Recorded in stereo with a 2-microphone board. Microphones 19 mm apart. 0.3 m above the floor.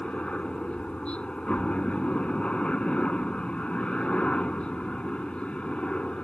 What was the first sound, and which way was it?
A helicopter, 60° left (ahead or behind).